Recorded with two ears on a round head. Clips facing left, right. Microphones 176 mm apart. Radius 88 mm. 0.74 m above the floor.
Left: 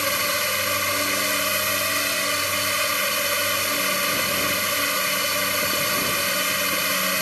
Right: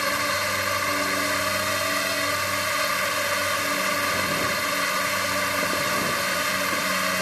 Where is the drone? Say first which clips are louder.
Left 1 dB; 40° left (ahead or behind).